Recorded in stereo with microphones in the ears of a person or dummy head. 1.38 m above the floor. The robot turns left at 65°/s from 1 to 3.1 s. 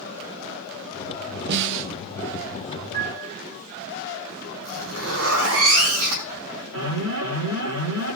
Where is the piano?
50° right (ahead or behind), 2 m; by 3.4 s 40° right (ahead or behind), 2 m.